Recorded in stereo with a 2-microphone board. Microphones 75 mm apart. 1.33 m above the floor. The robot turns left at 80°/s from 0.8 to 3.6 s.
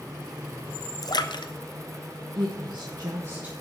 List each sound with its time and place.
1.0 s a splash: 50° left (ahead or behind), 1.0 m; by 1.5 s 85° left, 1.0 m
2.4 s a woman speaking: 70° right, 1.3 m; by 3.5 s 165° right, 1.3 m